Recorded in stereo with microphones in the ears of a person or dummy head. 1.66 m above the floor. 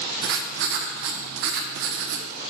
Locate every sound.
0.2 s writing: 55° right (ahead or behind), 0.6 m